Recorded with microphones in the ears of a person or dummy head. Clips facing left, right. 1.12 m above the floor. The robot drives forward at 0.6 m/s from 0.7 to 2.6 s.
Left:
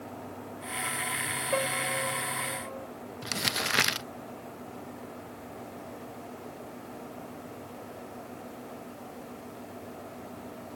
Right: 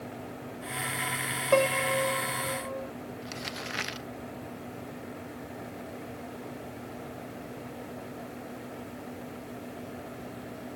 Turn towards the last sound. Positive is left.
turn(degrees=65)  # may be behind; listen again after turning